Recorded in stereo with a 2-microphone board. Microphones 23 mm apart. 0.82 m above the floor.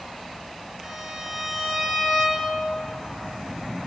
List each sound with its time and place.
0.8 s a violin: 15° right (ahead or behind), 1.2 m